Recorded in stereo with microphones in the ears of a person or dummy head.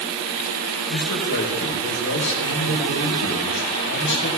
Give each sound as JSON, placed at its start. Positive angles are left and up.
{"t": 0.9, "sound": "a man speaking", "side_deg": 65, "distance_m": 4.5}